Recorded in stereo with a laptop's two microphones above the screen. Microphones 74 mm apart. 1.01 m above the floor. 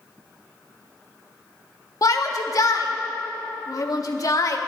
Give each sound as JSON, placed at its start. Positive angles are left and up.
{"t": 2.0, "sound": "a shout", "side_deg": 50, "distance_m": 1.6}